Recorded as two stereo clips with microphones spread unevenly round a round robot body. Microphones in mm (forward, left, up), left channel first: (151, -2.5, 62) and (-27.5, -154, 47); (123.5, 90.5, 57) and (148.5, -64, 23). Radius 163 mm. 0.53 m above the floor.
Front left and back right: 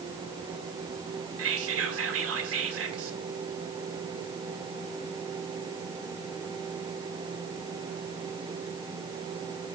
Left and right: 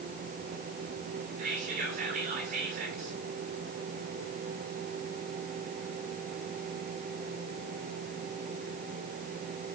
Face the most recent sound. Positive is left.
turn(degrees=-125)